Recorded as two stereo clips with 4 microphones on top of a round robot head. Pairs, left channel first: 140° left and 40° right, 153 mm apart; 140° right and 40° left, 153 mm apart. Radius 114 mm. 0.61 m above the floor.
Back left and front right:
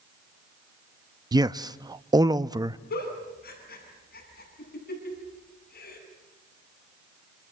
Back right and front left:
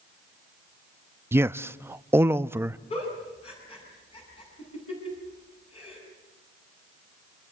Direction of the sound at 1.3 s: 15° right.